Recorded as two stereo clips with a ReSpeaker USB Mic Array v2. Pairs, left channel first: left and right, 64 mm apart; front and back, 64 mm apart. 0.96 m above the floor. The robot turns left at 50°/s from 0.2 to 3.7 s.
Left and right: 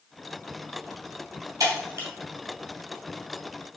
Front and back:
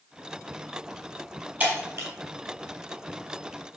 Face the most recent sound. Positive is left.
turn(degrees=135)